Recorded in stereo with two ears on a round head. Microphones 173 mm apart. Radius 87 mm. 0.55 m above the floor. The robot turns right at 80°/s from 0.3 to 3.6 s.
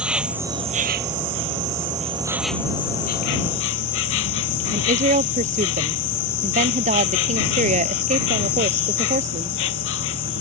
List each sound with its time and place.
0.0 s an insect: 175° right; by 10.4 s 90° left
4.7 s a woman speaking: 40° right (ahead or behind)